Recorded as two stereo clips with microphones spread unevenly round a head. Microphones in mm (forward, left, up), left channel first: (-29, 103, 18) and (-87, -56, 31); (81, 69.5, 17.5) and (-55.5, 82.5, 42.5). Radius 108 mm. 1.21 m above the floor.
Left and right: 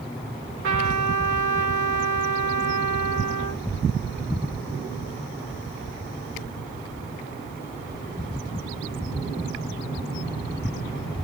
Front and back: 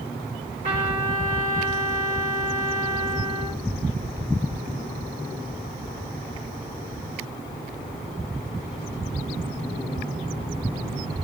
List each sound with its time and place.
0.6 s a trumpet: 125° right, 2.0 m